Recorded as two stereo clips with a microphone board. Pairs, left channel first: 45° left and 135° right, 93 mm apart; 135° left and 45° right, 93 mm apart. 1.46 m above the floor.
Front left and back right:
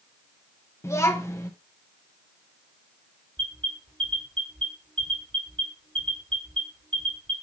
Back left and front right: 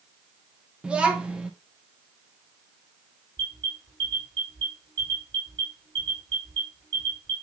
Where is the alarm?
150° right, 4 m.